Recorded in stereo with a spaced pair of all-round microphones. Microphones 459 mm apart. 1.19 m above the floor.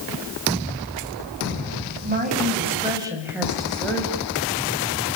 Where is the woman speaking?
20° right (ahead or behind), 7.5 m; by 4.3 s 10° left (ahead or behind), 6.5 m.